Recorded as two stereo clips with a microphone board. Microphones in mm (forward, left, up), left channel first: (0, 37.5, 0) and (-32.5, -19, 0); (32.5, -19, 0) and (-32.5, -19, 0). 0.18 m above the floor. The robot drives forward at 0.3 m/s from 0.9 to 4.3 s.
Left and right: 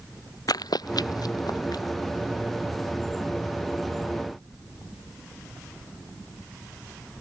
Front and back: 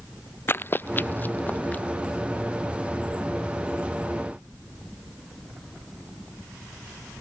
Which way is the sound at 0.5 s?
50° left.